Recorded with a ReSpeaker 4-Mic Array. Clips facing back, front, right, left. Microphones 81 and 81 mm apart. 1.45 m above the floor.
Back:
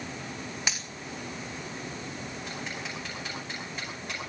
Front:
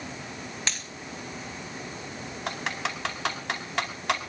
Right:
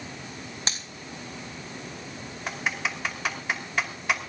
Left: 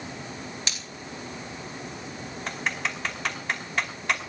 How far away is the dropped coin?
About 1.6 m.